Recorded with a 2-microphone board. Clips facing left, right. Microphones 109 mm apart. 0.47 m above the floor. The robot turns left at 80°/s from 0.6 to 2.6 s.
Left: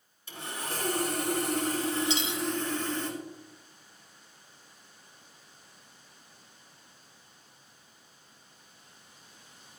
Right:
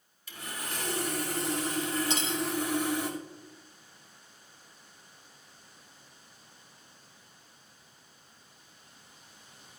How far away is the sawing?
About 2.5 m.